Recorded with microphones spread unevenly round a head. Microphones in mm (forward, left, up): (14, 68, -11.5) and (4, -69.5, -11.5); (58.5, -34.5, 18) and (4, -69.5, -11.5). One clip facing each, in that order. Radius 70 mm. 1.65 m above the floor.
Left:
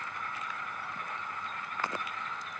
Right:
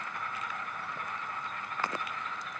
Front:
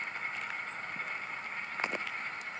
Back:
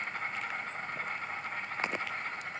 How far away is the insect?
About 1.4 m.